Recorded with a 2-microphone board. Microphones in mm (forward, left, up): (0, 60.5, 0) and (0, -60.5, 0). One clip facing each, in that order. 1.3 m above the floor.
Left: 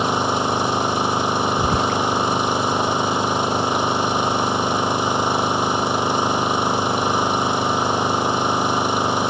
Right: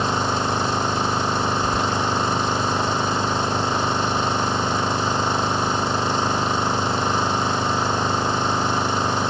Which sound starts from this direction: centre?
An engine running, at 0.0 s.